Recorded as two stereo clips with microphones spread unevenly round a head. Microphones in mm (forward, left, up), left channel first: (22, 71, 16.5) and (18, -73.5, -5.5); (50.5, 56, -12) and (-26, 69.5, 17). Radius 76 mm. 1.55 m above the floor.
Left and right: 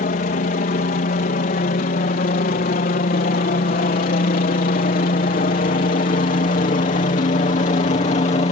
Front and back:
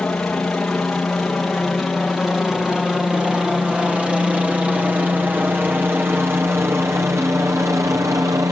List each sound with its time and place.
0.0 s a helicopter: 65° left; by 8.5 s 125° left